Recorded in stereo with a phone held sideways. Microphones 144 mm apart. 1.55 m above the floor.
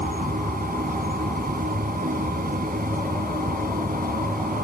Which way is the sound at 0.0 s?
80° right.